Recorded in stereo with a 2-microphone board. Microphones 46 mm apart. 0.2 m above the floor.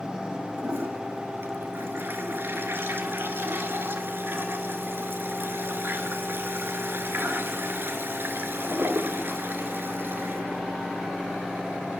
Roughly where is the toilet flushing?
Right.